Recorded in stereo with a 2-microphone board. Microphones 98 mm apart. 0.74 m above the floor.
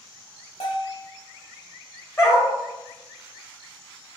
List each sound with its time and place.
0.6 s a bell: 85° left, 1.4 m
2.2 s a dog barking: 25° left (ahead or behind), 1.4 m